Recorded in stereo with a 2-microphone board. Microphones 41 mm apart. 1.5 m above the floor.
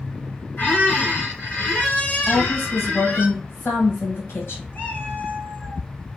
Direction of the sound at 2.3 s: 70° left (ahead or behind).